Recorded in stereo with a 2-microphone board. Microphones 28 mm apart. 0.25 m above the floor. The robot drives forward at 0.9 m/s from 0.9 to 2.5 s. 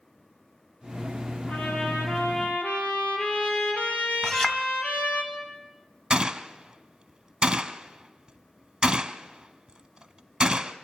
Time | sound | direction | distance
1.5 | a trumpet | 70° left (ahead or behind) | 4 m
4.2 | a clink | 25° left (ahead or behind) | 1.3 m
6.1 | a gunshot | 25° right (ahead or behind) | 0.7 m